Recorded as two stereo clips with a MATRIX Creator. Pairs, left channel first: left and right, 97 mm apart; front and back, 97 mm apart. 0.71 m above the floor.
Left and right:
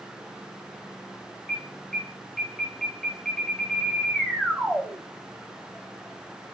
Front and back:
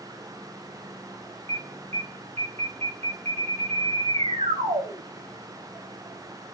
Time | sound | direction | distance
1.5 | an alarm | 175° left | 6 m